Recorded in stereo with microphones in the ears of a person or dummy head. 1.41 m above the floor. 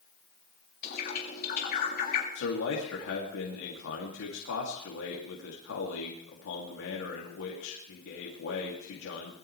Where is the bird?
50° left (ahead or behind), 3.5 m.